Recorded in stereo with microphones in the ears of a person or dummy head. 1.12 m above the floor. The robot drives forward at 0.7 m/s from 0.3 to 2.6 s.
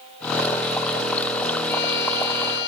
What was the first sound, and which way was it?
A violin, 65° left (ahead or behind).